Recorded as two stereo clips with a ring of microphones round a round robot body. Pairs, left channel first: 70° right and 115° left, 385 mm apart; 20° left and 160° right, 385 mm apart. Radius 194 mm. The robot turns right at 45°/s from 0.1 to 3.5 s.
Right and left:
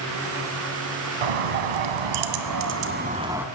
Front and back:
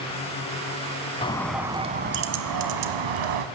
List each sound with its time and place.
1.2 s a bird: 100° left, 1.5 m; by 3.5 s 160° right, 1.5 m